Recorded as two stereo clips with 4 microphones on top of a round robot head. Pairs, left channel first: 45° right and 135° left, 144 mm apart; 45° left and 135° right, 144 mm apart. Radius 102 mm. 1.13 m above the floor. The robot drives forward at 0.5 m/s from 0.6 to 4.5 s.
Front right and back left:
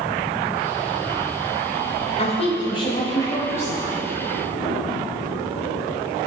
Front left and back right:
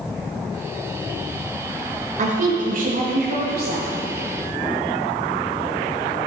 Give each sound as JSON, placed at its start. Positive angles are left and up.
{"t": 2.2, "sound": "a woman speaking", "azimuth_deg": -95, "distance_m": 1.3}